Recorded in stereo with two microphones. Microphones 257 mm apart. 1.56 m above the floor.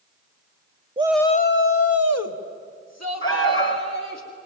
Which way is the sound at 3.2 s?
50° left (ahead or behind).